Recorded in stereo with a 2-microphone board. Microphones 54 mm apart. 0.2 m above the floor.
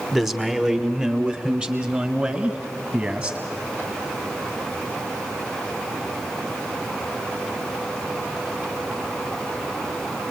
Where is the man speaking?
5° right (ahead or behind), 1.2 m; by 3.4 s 25° right (ahead or behind), 2.5 m.